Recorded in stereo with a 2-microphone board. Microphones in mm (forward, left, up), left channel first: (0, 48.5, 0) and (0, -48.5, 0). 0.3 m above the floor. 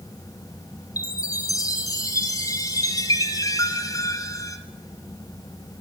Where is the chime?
35° left (ahead or behind), 1.4 m.